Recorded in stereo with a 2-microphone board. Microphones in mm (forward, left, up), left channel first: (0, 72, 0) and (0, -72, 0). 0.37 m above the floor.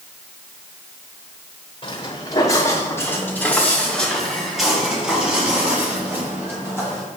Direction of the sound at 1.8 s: 35° left (ahead or behind).